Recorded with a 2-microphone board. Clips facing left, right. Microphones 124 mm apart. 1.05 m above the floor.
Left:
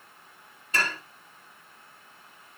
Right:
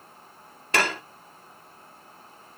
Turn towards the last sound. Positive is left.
turn(degrees=-75)  # may be behind; listen again after turning